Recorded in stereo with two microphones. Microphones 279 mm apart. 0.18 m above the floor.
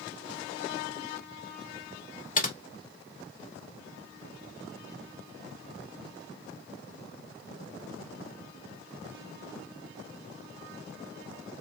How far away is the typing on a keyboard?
About 0.7 m.